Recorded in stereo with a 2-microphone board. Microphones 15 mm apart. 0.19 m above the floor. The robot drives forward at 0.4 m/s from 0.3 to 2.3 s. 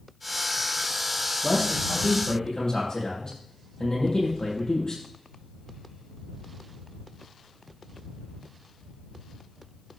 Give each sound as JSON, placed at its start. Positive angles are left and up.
{"t": 1.4, "sound": "a man speaking", "side_deg": 45, "distance_m": 6.0}